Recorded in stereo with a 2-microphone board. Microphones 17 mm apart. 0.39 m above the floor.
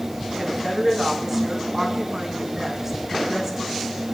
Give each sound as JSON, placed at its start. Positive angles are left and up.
{"t": 0.4, "sound": "a woman speaking", "side_deg": -25, "distance_m": 3.0}